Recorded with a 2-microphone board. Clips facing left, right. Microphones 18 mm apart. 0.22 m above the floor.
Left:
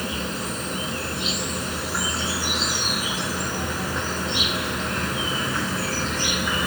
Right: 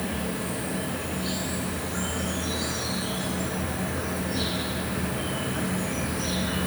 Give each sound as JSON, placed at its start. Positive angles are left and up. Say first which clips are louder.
{"t": 0.0, "sound": "an insect", "louder": "left 2 dB", "side_deg": 50, "distance_m": 1.2}